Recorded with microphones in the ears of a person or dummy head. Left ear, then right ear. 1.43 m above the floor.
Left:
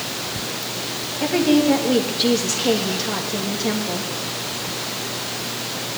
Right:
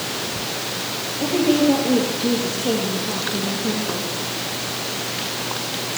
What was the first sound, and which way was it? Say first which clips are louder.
A woman speaking: even; 55° left (ahead or behind).